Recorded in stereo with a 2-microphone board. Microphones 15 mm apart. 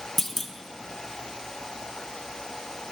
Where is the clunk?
20° left (ahead or behind), 0.5 m.